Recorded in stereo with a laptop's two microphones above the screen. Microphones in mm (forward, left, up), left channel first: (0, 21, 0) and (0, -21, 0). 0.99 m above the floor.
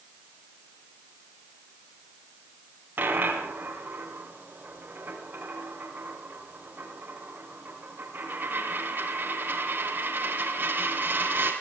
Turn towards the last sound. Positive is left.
turn(degrees=-50)  # may be behind; listen again after turning